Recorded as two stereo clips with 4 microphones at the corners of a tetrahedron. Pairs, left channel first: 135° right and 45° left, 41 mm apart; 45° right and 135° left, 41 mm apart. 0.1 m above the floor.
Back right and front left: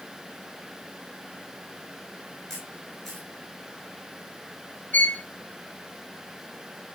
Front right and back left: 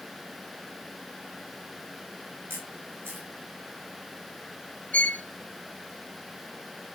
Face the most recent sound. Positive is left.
turn(degrees=-95)